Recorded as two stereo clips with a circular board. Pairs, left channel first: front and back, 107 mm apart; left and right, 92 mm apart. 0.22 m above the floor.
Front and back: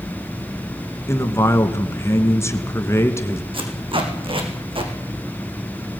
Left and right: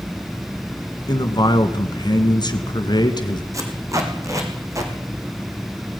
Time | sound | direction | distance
1.1 | a man speaking | 60° left | 2 m
3.5 | tape being pulled | 145° right | 4 m